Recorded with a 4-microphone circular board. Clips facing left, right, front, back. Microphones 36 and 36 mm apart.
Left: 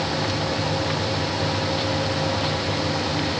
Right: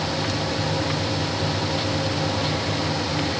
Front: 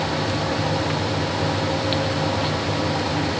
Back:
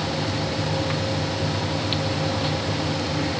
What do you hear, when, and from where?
Only background noise.